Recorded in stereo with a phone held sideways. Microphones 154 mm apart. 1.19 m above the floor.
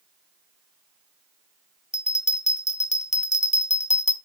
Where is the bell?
45° left (ahead or behind), 1.1 m.